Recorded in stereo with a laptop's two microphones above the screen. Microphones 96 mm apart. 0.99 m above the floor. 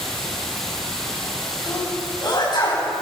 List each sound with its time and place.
0.0 s running water: 5° left (ahead or behind), 6 m
1.7 s a sneeze: 50° left (ahead or behind), 6 m